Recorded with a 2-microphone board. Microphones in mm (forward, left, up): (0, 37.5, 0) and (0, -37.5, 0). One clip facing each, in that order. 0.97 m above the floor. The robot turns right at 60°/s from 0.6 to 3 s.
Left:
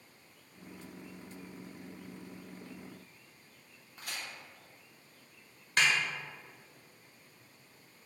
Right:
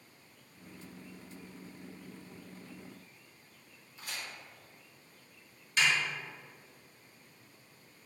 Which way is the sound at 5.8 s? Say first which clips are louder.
Left 1 dB; 55° left (ahead or behind).